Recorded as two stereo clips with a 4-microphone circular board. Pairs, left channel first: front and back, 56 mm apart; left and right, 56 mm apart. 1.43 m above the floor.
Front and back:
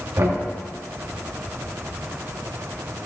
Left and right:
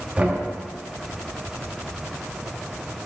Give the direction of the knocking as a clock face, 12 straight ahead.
5 o'clock.